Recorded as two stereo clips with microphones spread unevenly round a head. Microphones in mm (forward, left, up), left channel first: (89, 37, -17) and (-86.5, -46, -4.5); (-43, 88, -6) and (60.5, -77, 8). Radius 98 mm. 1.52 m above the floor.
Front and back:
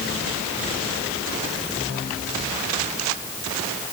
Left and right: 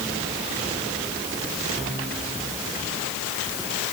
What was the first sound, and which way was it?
Only background noise.